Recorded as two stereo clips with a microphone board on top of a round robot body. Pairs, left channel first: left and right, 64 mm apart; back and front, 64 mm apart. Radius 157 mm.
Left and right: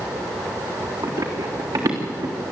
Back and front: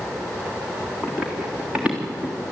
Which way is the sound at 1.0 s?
80° right.